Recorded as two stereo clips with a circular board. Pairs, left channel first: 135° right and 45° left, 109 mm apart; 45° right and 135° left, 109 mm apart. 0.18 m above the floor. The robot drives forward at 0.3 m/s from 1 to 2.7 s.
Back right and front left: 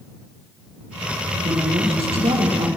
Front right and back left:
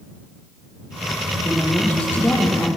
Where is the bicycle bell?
No bicycle bell in this recording.